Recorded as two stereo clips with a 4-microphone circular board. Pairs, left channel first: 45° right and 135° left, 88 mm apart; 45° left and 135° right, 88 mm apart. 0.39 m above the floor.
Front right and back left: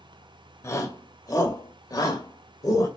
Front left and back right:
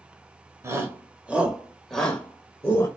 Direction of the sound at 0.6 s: 90° right.